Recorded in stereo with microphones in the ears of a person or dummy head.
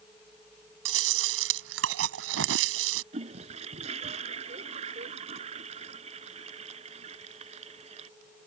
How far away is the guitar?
No guitar in this recording.